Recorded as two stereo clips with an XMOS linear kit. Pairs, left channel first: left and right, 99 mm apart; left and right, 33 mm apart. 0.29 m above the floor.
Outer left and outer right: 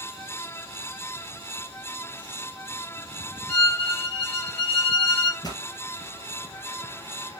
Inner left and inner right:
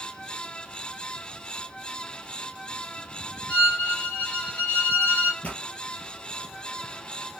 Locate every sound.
3.5 s a violin: 65° left (ahead or behind), 3 m
5.4 s a pop: 45° left (ahead or behind), 2.5 m